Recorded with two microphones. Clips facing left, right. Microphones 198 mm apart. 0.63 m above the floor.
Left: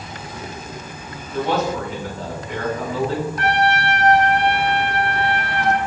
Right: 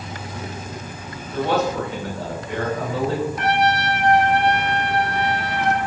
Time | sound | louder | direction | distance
0.0 | an insect | right 1 dB | 75° right (ahead or behind) | 1.9 m
1.3 | a man speaking | even | 65° right (ahead or behind) | 2.5 m
3.4 | a trumpet | left 3 dB | 20° right (ahead or behind) | 1.2 m